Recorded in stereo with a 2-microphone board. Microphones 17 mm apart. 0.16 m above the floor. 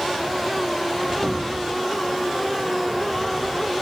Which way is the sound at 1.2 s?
40° right (ahead or behind).